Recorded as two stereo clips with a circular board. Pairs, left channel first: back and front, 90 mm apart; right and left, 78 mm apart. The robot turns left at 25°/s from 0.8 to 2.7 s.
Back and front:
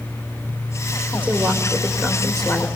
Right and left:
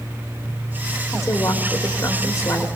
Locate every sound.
1.1 s a woman speaking: 60° right, 1.4 m; by 2.7 s 100° right, 1.4 m